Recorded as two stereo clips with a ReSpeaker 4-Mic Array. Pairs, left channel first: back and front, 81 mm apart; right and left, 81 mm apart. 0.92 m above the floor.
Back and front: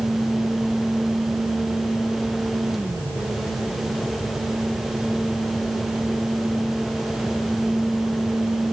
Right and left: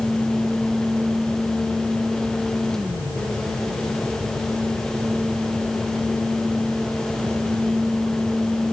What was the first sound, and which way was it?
Only background noise.